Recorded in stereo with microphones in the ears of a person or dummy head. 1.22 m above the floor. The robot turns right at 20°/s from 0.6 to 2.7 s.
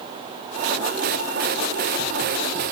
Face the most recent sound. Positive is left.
No sound to turn to.